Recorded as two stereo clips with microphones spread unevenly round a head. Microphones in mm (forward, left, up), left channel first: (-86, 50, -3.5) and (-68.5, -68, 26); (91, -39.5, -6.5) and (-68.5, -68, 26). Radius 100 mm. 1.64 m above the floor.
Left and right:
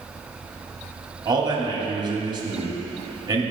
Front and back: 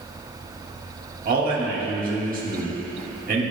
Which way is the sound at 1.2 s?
135° right.